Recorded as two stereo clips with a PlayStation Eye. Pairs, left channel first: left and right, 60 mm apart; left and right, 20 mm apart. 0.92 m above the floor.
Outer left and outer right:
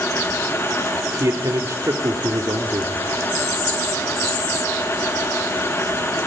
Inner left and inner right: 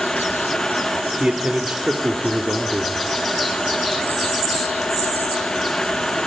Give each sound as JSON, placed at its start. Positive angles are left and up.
{"t": 1.2, "sound": "a man speaking", "side_deg": -70, "distance_m": 1.9}